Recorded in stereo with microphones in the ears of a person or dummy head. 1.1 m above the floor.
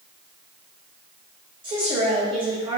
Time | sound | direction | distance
1.6 | a woman speaking | 25° right (ahead or behind) | 0.9 m